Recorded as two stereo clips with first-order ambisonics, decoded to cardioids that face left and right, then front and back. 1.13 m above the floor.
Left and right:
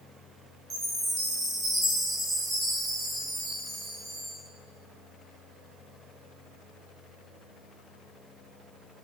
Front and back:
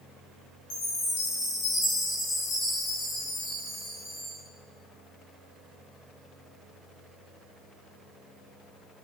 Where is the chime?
25° right, 0.8 m.